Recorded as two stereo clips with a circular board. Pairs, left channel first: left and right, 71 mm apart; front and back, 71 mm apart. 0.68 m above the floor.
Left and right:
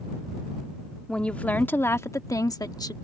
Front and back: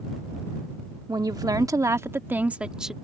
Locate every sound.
1.1 s a woman speaking: 165° left; by 2.9 s 95° left